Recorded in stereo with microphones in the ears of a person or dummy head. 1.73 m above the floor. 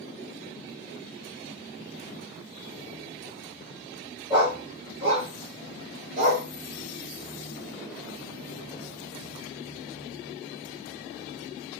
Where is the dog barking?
25° right (ahead or behind), 1.7 m; by 6.5 s 55° right (ahead or behind), 2.5 m.